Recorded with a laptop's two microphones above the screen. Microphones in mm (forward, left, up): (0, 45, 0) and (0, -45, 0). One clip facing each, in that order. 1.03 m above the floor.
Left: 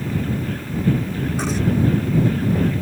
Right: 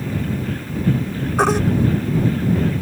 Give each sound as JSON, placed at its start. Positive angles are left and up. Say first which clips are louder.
{"t": 1.4, "sound": "a baby crying", "louder": "right 11 dB", "side_deg": -75}